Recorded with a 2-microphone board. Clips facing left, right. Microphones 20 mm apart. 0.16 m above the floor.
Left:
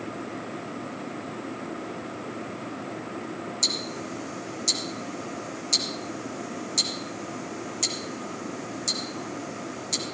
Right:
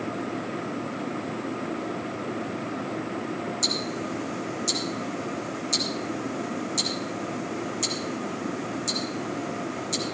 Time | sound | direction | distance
3.6 | ticking | 20° left (ahead or behind) | 1.8 m